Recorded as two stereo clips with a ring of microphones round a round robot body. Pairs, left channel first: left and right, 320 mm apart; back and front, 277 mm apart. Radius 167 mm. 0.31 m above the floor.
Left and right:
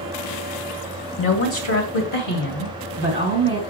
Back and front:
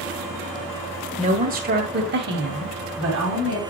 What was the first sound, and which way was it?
A woman speaking, 55° left.